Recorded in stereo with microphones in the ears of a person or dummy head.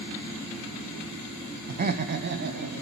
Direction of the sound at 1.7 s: 40° right (ahead or behind).